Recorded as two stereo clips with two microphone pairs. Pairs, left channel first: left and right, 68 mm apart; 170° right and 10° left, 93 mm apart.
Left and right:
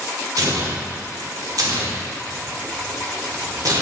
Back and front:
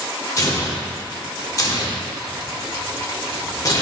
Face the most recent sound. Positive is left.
turn(degrees=-115)